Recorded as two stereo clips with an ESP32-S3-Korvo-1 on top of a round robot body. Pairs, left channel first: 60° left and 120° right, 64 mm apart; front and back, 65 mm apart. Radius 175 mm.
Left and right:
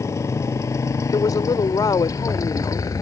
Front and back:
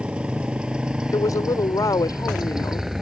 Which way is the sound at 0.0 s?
105° left.